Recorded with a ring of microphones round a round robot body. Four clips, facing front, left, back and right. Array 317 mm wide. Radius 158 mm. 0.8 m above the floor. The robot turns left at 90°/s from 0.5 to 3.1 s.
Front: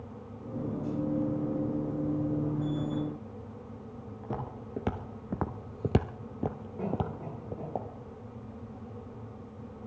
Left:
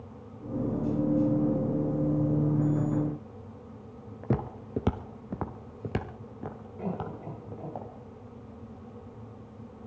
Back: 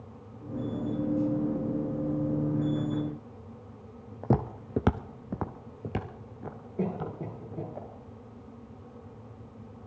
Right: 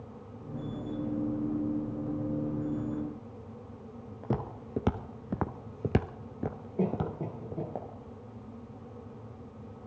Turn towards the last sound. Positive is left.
turn(degrees=-125)